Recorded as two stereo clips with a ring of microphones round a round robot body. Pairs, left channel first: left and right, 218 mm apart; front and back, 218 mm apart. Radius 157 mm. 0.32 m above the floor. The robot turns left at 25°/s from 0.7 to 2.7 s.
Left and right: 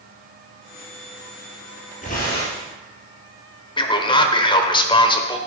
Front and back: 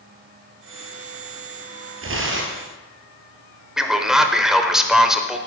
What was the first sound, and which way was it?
Tearing paper, 160° left.